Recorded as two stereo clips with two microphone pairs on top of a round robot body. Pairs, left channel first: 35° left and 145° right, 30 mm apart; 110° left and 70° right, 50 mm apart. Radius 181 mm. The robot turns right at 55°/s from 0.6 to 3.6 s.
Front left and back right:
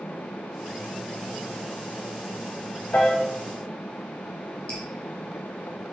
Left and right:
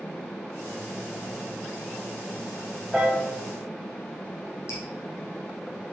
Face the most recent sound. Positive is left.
turn(degrees=80)